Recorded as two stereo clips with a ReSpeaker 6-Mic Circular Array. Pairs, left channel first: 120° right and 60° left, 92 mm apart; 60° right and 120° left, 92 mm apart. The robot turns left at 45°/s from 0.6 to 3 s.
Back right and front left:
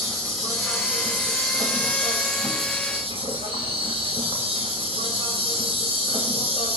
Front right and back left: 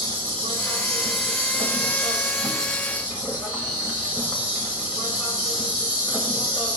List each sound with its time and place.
0.0 s an insect: 150° left, 2.5 m; by 6.8 s 45° left, 2.5 m